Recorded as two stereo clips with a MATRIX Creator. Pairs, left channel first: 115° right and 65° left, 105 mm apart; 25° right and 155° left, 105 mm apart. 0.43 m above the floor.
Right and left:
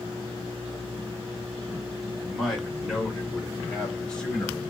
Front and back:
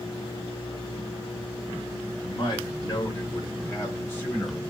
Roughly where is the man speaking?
Ahead.